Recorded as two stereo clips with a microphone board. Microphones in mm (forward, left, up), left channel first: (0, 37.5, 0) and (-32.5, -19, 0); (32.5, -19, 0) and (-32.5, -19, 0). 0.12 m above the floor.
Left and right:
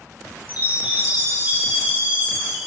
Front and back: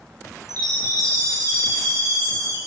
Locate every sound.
0.5 s a chime: straight behind, 6.5 m